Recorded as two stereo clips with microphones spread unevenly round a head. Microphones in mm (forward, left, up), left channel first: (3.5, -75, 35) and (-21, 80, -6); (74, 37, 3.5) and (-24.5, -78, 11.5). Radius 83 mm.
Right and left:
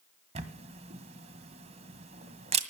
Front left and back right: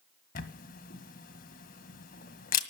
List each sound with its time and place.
0.3 s a camera shutter: 40° left, 1.8 m